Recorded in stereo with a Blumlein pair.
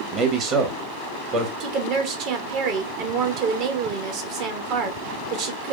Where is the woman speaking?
45° right, 1.1 m.